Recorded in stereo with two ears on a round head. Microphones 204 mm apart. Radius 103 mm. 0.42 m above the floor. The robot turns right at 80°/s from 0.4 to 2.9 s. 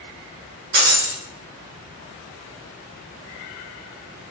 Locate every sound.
0.7 s breaking glass: 50° right, 0.9 m; by 1.2 s 15° right, 0.9 m